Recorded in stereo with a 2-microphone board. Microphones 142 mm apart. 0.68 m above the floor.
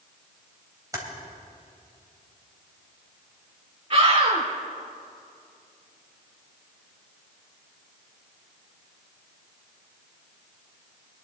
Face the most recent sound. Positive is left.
turn(degrees=-45)  # may be behind; listen again after turning